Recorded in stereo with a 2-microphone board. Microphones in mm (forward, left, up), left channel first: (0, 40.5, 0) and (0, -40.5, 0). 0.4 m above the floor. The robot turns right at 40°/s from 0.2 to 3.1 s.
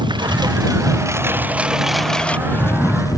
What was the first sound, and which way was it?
A lawn mower, 75° right (ahead or behind).